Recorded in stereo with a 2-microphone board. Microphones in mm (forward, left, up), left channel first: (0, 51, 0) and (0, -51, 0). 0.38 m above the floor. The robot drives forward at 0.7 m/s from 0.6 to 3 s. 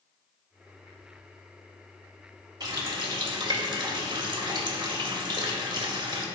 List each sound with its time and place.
2.6 s a running tap: 40° right (ahead or behind), 1.0 m; by 6.2 s 45° right (ahead or behind), 0.8 m